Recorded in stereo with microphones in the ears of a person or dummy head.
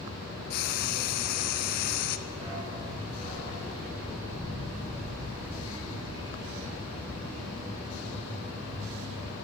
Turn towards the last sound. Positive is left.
turn(degrees=-45)  # may be behind; listen again after turning